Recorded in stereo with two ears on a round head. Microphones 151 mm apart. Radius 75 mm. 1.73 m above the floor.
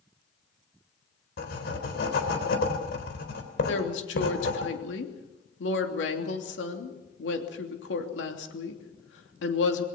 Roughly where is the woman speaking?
Left.